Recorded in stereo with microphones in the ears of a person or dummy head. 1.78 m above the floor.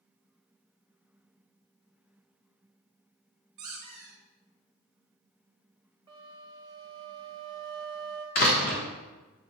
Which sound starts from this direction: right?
A flute, at 6.1 s.